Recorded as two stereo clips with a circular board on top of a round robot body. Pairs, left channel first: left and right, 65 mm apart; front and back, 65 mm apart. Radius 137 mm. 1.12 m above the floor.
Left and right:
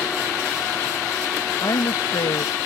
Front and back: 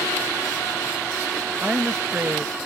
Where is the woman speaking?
115° left.